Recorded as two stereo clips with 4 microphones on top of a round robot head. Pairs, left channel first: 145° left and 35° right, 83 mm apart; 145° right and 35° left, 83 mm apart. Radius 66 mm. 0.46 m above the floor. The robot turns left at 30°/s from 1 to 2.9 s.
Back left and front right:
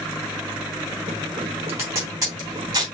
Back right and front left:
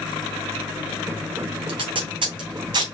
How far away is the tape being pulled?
About 2.5 m.